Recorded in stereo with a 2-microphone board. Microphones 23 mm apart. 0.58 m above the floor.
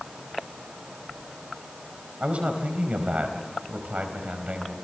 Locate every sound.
2.2 s a man speaking: 65° right (ahead or behind), 4 m